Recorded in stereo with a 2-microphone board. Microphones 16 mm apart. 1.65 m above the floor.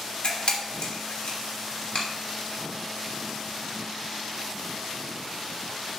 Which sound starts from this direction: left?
A camera shutter, at 0.2 s.